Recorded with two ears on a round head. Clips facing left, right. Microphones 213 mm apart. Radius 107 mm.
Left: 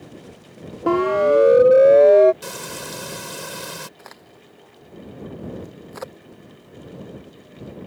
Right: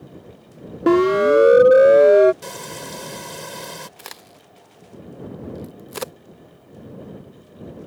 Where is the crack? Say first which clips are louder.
Right 1 dB; 45° right (ahead or behind).